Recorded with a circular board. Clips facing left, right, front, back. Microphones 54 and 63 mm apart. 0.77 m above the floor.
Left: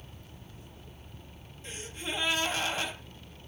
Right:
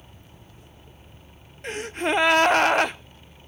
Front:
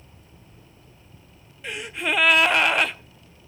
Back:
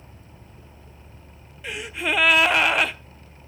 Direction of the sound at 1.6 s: 90° right.